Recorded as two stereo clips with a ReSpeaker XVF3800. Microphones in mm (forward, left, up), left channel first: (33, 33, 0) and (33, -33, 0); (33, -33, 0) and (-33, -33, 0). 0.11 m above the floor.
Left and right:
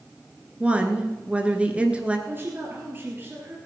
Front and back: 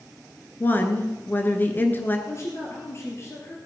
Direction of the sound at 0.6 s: 30° right.